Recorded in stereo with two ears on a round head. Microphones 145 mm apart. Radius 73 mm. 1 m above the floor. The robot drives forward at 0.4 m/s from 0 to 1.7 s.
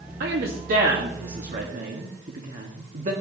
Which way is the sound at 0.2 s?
65° right (ahead or behind).